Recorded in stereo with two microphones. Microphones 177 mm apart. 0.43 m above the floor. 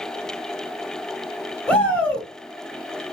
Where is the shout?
5° left (ahead or behind), 1.7 m.